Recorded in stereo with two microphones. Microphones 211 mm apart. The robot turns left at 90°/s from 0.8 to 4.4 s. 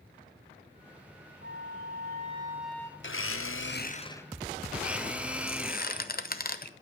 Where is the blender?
120° left, 0.8 m; by 6.1 s 5° right, 0.8 m.